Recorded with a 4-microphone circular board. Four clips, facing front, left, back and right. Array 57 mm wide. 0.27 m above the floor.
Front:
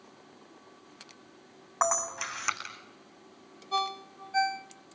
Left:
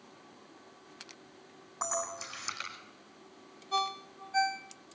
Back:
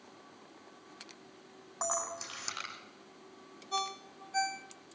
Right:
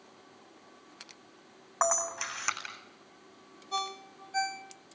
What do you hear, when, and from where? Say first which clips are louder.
1.8 s a camera shutter: right 6 dB, front 8 dB; 45° right, 8.5 m
3.7 s a ringtone: left 3 dB, front 5 dB; 15° left, 1.0 m